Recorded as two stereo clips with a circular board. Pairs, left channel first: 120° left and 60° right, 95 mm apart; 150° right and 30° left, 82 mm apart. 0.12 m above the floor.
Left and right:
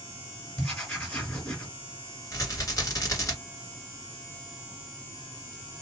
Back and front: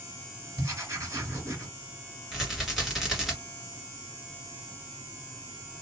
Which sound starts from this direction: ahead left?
Writing, at 0.6 s.